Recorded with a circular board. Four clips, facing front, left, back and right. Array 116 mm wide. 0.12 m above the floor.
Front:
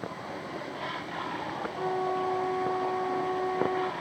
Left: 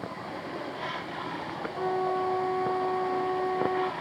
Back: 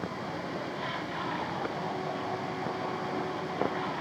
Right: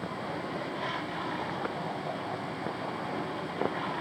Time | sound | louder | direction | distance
1.8 | a flute | left 7 dB, front 5 dB | 55° left | ?